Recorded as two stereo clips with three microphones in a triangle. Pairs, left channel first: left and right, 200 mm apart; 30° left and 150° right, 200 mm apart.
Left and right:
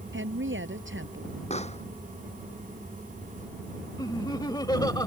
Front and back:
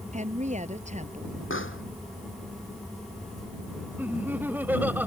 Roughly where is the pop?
Ahead left.